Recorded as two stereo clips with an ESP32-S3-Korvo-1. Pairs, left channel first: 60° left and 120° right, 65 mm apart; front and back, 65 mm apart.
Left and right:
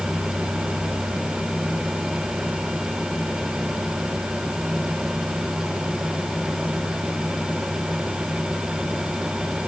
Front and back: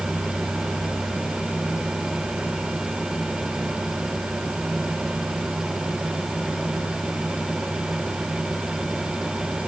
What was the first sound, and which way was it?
Only background noise.